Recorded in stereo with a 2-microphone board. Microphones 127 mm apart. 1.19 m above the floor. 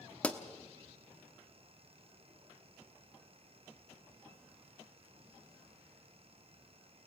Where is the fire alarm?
I don't hear a fire alarm.